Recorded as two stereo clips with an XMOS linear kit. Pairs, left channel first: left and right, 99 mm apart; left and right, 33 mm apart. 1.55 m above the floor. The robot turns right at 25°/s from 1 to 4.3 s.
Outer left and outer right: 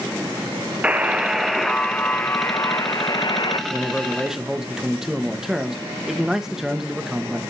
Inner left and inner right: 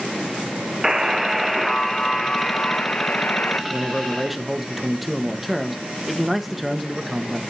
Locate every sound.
0.8 s a buzzer: 15° right, 0.9 m; by 3.6 s 50° left, 0.9 m
3.7 s a man speaking: 10° left (ahead or behind), 1.3 m; by 7.4 s 5° right (ahead or behind), 1.3 m